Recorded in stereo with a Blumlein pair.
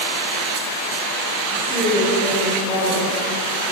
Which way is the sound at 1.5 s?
15° right.